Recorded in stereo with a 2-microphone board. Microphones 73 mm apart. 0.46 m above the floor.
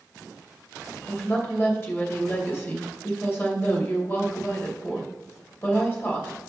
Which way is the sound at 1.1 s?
30° left (ahead or behind).